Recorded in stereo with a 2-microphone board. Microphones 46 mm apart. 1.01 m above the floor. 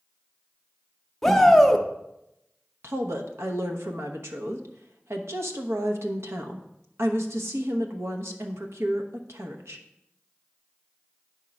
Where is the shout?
10° left (ahead or behind), 0.8 m.